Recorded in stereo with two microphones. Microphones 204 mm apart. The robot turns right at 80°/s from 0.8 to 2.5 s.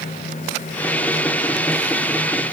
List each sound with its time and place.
Only background noise.